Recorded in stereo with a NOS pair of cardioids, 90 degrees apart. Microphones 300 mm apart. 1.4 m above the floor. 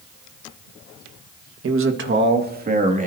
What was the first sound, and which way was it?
A man speaking, 50° right.